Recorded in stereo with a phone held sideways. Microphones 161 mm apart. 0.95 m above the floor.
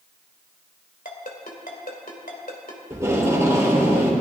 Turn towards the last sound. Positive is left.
turn(degrees=-20)  # may be behind; listen again after turning